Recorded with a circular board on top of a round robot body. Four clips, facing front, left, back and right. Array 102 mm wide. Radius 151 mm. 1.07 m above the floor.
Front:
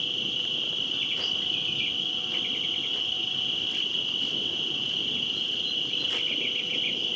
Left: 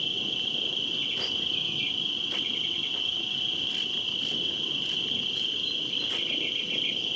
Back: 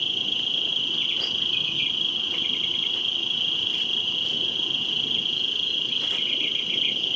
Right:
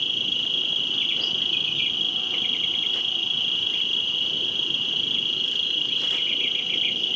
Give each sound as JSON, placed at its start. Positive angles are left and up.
{"t": 0.0, "sound": "an insect", "azimuth_deg": -120, "distance_m": 1.1}